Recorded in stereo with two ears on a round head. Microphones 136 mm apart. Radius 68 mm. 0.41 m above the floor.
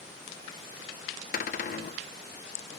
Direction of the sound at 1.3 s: 55° left (ahead or behind).